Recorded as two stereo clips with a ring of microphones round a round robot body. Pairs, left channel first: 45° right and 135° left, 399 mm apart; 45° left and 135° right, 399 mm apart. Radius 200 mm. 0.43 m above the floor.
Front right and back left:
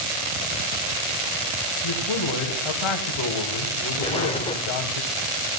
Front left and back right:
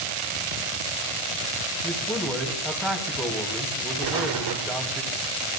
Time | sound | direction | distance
1.8 | a man speaking | 45° right | 3 m
4.0 | an explosion | 115° right | 1.1 m